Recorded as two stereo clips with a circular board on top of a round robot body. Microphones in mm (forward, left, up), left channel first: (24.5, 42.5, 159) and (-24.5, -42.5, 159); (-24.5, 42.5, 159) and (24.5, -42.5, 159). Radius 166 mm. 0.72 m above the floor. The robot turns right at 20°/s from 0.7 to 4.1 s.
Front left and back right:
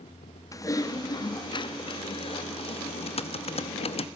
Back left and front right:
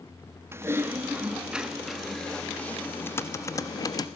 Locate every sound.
0.5 s typing on a keyboard: 5° left, 1.1 m; by 4.1 s 70° left, 1.1 m